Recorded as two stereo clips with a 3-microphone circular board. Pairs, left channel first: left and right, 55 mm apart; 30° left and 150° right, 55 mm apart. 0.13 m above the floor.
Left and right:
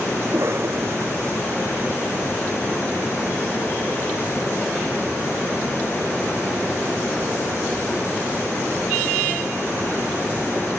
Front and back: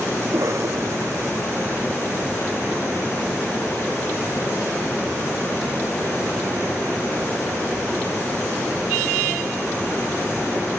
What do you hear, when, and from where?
0.2 s a cough: 125° right